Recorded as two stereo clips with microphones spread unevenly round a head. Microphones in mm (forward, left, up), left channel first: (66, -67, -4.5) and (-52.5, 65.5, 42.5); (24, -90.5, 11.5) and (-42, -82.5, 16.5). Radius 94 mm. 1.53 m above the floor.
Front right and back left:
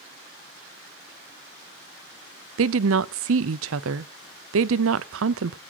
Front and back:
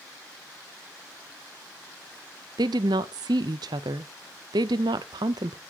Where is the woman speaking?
145° left, 0.5 m.